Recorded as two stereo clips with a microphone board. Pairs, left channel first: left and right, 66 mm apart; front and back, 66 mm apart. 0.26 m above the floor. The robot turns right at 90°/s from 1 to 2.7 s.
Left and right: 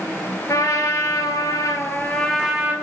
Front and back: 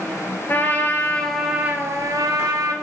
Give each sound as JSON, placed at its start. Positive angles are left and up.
{"t": 0.5, "sound": "a trumpet", "azimuth_deg": 55, "distance_m": 0.7}